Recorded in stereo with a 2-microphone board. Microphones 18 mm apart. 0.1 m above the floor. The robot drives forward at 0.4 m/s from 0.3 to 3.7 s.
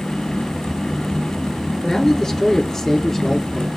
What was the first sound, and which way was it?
A man speaking, 25° left (ahead or behind).